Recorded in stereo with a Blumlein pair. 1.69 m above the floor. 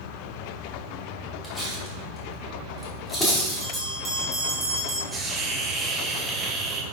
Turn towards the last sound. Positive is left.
turn(degrees=-10)